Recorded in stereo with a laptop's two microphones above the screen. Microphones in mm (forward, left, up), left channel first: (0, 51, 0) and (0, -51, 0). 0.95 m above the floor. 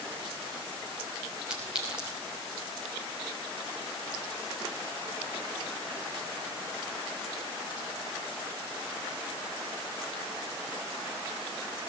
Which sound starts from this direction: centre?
A clink, at 1.5 s.